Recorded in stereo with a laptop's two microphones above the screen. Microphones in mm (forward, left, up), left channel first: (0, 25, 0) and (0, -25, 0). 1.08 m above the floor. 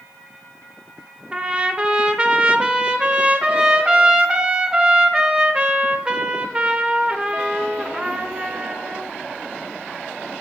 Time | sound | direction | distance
1.3 | a trumpet | 20° right (ahead or behind) | 0.6 m